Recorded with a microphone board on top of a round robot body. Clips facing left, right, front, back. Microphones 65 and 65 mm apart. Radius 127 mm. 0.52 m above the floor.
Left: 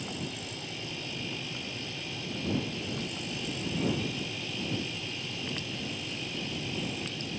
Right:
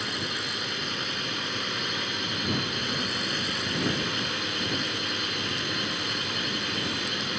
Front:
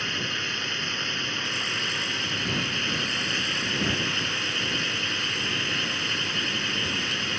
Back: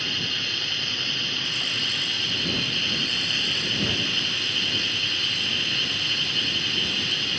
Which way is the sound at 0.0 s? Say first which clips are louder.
Right 6 dB, front 1 dB; 70° right.